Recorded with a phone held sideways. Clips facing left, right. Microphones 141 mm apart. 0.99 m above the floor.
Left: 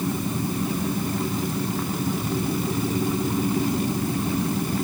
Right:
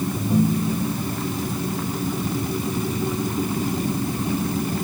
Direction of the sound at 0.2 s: 75° right (ahead or behind).